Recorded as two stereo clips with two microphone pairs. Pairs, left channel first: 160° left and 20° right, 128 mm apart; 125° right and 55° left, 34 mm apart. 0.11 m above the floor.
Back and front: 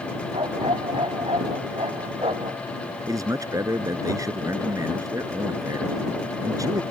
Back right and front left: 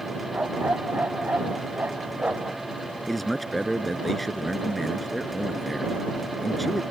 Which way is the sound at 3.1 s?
40° right.